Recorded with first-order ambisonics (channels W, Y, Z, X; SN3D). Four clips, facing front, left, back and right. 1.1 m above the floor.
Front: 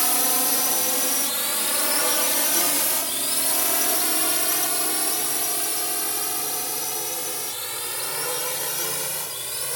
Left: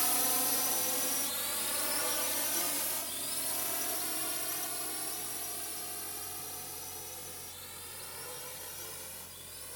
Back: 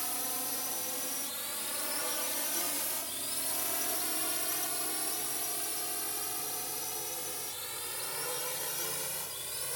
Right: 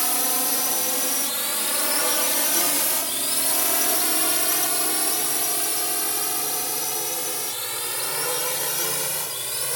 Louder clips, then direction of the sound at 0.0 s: Right 8 dB, front 14 dB; 30° right.